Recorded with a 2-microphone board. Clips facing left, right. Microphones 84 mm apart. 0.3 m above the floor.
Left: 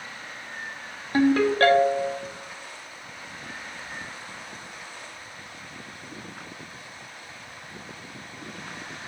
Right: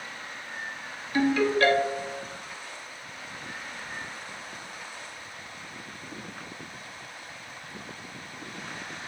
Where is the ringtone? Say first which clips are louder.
Left 3 dB; 45° left (ahead or behind), 0.7 m.